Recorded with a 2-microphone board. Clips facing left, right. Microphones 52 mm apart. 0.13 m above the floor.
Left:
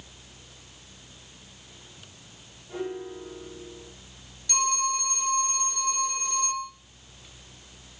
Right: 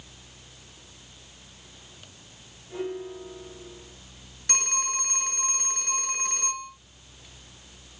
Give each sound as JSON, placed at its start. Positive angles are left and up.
{"t": 2.7, "sound": "a piano", "side_deg": 25, "distance_m": 6.0}
{"t": 4.5, "sound": "a phone ringing", "side_deg": -50, "distance_m": 1.7}